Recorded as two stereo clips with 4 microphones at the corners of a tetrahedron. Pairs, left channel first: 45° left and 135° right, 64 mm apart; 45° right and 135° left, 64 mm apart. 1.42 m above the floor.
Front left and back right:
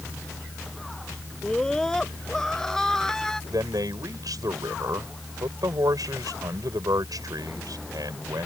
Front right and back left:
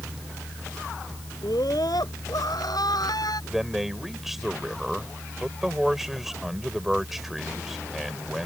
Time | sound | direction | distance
1.4 | a scream | 35° right | ?
3.5 | a man speaking | 140° right | ?